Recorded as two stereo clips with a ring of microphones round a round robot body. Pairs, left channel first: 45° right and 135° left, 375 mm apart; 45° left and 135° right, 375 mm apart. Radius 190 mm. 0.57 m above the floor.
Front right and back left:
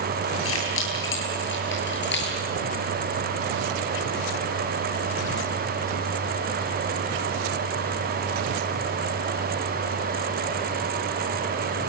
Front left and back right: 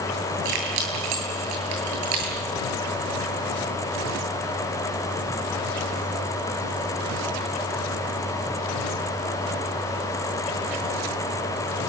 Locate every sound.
0.5 s keys jangling: 100° right, 9.5 m; by 2.4 s 110° right, 10 m